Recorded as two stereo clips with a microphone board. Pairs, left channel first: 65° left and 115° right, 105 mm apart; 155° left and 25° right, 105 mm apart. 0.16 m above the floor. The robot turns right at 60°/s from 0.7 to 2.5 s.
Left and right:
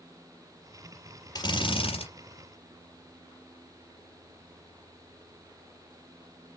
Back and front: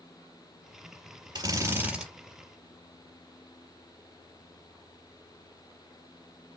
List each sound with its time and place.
1.4 s a drill: 20° left, 4.5 m; by 2.1 s 60° left, 4.5 m